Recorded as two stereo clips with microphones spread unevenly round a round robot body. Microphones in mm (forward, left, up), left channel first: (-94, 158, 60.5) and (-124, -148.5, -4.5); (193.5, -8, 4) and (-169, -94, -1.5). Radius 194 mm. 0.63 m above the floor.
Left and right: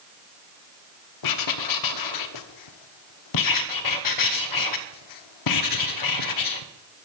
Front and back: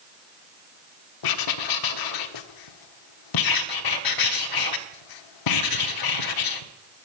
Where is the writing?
50° left, 1.1 m.